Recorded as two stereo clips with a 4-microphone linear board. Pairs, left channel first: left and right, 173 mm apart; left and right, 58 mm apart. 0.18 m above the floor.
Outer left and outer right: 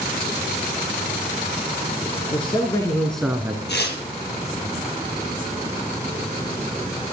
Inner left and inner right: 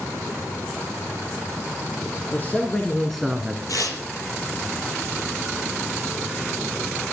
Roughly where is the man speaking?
Left.